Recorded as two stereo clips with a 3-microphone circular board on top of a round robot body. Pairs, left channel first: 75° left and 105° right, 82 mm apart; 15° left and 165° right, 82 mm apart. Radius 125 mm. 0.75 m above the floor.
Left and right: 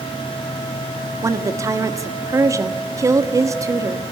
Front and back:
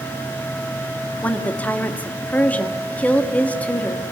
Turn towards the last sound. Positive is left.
turn(degrees=-60)